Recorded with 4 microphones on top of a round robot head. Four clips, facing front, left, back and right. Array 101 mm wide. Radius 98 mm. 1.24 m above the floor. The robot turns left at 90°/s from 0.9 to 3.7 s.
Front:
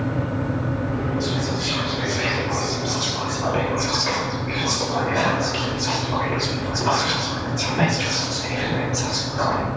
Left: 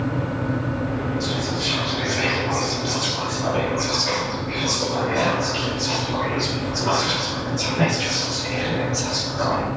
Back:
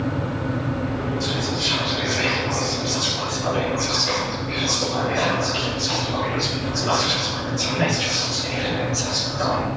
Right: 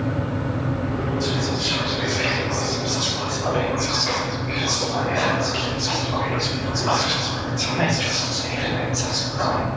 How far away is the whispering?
About 5.5 m.